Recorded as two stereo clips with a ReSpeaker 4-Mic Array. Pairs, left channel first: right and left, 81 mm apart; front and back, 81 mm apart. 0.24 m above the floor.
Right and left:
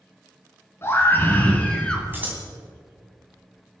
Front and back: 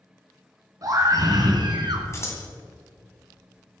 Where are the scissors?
35° left, 2 m.